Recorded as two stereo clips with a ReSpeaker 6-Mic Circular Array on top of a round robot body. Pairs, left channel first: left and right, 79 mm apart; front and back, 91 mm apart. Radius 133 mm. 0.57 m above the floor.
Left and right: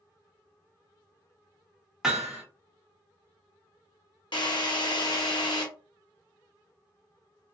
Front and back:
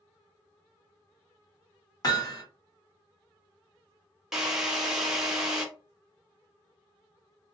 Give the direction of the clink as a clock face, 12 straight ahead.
I don't hear a clink.